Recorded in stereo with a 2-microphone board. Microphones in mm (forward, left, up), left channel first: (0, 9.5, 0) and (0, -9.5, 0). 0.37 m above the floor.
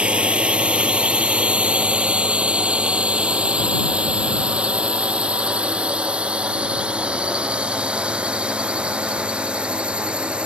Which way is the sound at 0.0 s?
80° right.